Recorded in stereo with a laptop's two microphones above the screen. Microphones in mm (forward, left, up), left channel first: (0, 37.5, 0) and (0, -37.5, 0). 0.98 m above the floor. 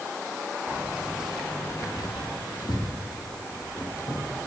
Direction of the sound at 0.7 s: 30° right (ahead or behind).